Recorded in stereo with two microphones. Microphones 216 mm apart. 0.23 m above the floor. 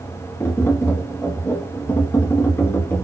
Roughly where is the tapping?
Centre.